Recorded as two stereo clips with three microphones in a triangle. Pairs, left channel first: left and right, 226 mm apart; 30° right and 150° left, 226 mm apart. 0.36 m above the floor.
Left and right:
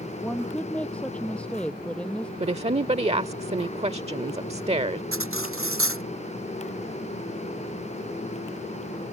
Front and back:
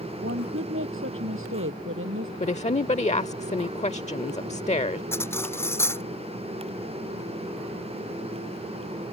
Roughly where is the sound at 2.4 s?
Ahead right.